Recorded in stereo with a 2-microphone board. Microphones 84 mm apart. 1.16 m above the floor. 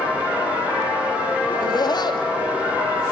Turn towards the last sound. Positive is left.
turn(degrees=55)  # may be behind; listen again after turning